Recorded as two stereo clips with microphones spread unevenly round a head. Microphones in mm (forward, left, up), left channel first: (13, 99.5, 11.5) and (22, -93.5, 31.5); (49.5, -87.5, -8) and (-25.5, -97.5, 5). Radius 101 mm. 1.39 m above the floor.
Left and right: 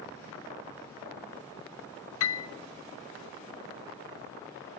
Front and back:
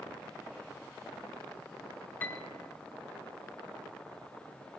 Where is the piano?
90° left, 0.6 m.